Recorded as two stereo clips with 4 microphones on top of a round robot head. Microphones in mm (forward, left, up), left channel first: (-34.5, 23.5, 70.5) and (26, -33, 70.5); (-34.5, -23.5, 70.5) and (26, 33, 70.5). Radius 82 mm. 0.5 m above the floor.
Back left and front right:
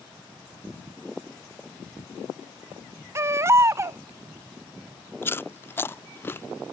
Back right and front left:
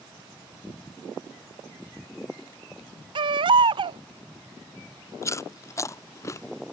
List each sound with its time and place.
3.1 s a baby crying: 15° left
5.2 s chewing: 170° right